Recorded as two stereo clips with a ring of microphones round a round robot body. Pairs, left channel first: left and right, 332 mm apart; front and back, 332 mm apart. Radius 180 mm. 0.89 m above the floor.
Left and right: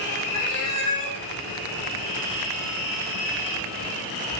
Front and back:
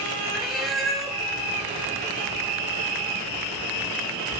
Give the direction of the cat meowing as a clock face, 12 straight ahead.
9 o'clock.